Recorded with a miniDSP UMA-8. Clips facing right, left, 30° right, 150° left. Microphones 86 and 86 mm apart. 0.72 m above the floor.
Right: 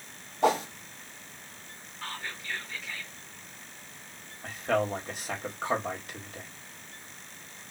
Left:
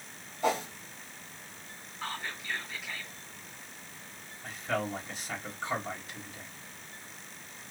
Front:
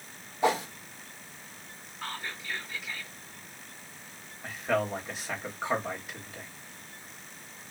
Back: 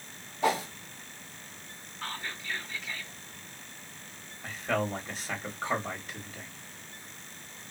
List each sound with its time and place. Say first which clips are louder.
0.4 s a whoosh: right 5 dB, front 1 dB; 100° right, 1.1 m
2.0 s whispering: left 1 dB, even; 35° left, 1.0 m
4.4 s a man speaking: right 5 dB, front 2 dB; 110° right, 1.5 m